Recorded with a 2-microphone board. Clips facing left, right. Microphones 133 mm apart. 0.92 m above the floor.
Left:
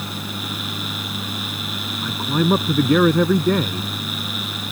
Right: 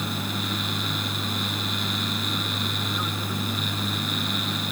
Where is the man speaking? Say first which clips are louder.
Left 10 dB; 80° left.